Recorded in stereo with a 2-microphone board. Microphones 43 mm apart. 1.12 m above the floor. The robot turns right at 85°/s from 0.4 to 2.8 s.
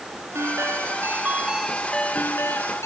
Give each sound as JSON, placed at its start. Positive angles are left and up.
{"t": 0.3, "sound": "a ringtone", "azimuth_deg": -110}